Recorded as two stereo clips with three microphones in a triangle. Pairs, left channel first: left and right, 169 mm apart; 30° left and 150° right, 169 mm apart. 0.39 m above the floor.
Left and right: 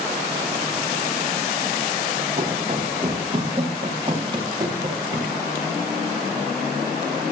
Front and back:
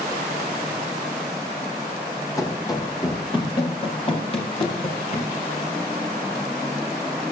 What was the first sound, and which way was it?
Running footsteps, 40° right.